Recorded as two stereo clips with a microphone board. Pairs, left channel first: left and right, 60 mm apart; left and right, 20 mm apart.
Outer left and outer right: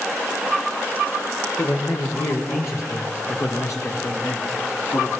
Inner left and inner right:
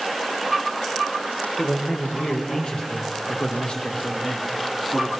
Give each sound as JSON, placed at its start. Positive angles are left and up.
{"t": 1.6, "sound": "a man speaking", "side_deg": 50, "distance_m": 5.5}